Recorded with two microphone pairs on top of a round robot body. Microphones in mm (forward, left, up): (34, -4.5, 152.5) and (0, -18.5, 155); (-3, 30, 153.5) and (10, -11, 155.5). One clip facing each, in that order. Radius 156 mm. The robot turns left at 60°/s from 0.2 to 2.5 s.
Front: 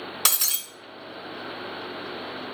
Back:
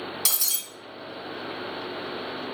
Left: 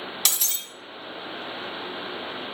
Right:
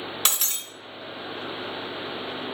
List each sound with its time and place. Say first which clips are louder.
0.2 s breaking glass: front 7 dB, right 1 dB; 15° right, 1.7 m; by 0.6 s 35° right, 1.7 m